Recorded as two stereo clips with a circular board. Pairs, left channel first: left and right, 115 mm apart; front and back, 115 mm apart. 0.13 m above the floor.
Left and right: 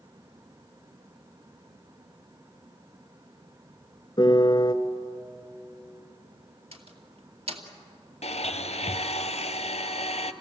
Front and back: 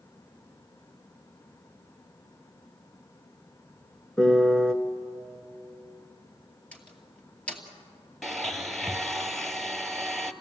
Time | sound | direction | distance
4.2 | a piano | 80° left | 1.0 m
6.7 | a door slam | 75° right | 2.5 m
8.2 | a blender | 90° left | 0.9 m